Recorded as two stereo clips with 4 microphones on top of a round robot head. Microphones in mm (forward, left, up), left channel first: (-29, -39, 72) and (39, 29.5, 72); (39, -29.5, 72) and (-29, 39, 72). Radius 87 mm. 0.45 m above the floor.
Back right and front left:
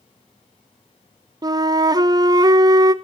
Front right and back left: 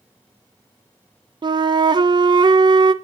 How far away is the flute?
About 0.6 m.